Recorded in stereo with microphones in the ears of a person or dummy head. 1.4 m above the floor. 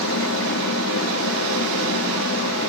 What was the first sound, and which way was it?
A fan, 65° left (ahead or behind).